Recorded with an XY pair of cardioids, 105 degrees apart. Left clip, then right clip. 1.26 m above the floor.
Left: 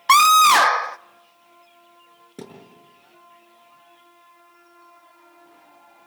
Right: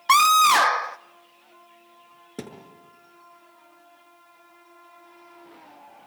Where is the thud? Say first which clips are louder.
Right 1 dB; 30° right, 6 m.